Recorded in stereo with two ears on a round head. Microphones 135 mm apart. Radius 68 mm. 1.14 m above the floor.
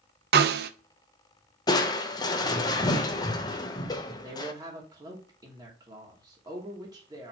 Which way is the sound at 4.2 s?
25° right (ahead or behind).